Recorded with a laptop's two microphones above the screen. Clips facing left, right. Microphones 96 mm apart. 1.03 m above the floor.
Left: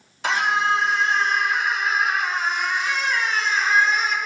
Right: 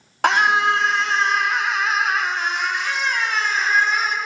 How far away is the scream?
About 1.9 m.